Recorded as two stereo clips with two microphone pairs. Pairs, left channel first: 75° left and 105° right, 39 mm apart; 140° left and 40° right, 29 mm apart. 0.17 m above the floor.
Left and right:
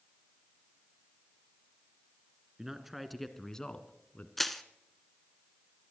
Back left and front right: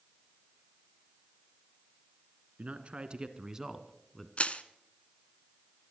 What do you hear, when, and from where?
2.6 s a man speaking: 30° right, 2 m; by 4.3 s 60° left, 1.8 m
4.4 s crushing: 160° left, 1.0 m